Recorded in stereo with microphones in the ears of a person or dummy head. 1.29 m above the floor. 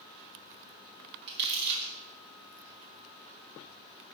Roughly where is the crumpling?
Right.